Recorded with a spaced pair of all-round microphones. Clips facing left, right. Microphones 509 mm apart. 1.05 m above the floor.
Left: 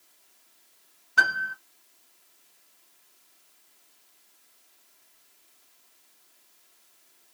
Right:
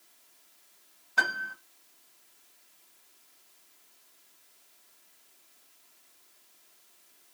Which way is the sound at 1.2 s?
35° left (ahead or behind).